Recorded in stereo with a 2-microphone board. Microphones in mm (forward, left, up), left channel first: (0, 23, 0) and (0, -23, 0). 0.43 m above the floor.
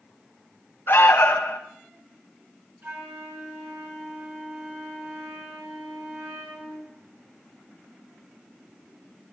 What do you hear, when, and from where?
0.9 s an alarm: 60° left (ahead or behind), 2.5 m
2.8 s a flute: 50° right (ahead or behind), 5.5 m